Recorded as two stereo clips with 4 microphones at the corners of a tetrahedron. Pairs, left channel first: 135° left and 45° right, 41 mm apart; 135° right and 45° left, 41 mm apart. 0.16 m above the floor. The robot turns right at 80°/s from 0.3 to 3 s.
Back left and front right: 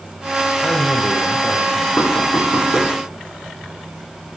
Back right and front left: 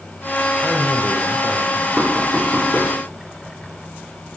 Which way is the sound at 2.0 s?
105° left.